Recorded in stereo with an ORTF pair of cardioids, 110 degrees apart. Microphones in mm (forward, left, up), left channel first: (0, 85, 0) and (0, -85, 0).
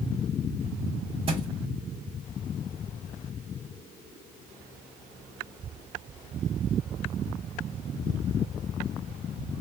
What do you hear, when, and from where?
1.3 s a thud: 35° right, 1.4 m